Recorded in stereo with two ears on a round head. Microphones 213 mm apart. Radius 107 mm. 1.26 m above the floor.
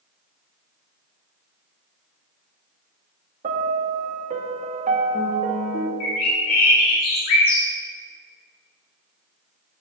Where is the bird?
60° left (ahead or behind), 3 m.